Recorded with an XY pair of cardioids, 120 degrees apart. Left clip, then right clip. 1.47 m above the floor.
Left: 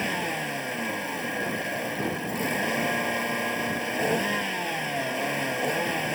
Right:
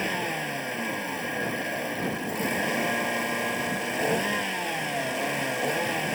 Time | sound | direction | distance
0.0 | a vehicle | straight ahead | ?